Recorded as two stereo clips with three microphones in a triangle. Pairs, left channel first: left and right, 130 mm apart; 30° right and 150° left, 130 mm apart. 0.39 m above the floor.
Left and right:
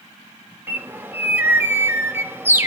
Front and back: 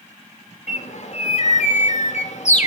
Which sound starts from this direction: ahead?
A bird, at 0.7 s.